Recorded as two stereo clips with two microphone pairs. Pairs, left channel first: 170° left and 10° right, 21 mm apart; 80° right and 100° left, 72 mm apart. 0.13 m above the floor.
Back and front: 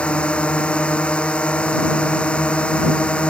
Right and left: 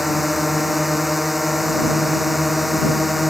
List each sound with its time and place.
0.0 s a drone: 175° right